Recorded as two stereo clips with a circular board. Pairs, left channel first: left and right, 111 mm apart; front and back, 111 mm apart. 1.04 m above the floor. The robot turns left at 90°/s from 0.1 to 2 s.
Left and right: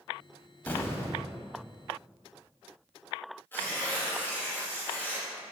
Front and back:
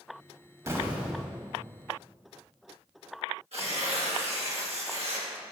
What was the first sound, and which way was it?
An explosion, 145° left.